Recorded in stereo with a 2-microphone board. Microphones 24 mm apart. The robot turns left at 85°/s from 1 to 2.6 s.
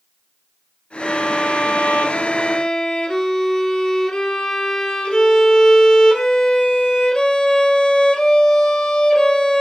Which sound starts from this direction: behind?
A violin, at 1.0 s.